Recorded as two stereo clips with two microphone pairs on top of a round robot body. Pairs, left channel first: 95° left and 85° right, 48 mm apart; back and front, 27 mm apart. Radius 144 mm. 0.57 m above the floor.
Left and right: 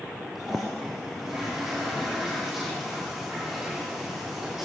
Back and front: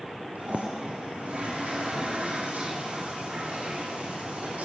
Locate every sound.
0.3 s a toilet flushing: straight ahead, 9 m